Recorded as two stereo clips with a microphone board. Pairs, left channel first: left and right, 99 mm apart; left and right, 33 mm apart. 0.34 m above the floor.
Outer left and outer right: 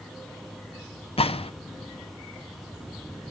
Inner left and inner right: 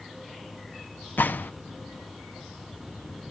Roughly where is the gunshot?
Left.